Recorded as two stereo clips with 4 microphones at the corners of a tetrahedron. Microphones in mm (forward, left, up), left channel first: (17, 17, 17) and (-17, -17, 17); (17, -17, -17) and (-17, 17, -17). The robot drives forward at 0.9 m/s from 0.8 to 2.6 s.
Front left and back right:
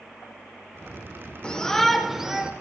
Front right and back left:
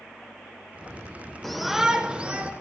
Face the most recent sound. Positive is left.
turn(degrees=165)